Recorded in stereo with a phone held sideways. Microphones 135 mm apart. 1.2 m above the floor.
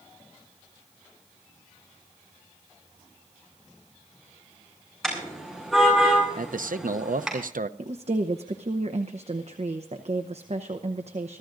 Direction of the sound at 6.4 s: 80° right.